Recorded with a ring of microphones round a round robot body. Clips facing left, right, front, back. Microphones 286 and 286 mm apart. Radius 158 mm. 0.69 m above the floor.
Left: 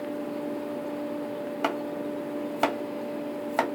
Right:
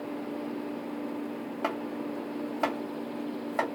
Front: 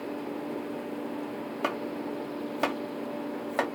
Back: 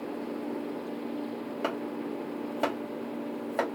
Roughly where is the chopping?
Left.